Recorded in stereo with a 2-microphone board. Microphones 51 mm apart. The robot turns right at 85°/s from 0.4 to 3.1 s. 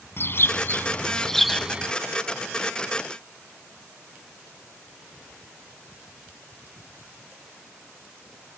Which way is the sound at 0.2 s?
95° left.